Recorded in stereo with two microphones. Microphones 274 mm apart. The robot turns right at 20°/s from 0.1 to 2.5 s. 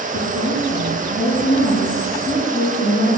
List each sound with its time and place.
0.1 s a woman speaking: 130° left, 4.5 m; by 3.2 s 175° left, 4.5 m